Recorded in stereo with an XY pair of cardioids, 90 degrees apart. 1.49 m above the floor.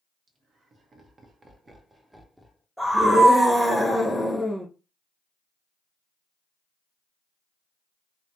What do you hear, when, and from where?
0.3 s laughter: 60° right, 1.3 m; by 2.6 s 10° left, 0.7 m
2.8 s a scream: 5° right, 1.0 m